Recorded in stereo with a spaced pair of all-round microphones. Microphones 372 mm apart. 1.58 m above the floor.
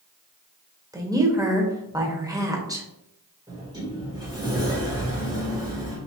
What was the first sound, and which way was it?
A woman speaking, 10° right (ahead or behind).